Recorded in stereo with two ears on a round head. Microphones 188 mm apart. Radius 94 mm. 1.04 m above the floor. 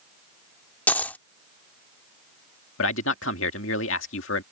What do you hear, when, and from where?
0.9 s a dropped coin: 10° left (ahead or behind)
2.8 s a man speaking: 65° left (ahead or behind)